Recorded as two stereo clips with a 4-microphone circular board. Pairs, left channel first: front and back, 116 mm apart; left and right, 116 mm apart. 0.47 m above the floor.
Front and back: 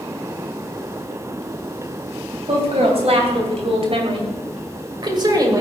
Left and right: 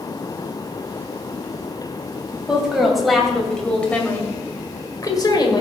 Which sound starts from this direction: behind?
A woman speaking, at 2.5 s.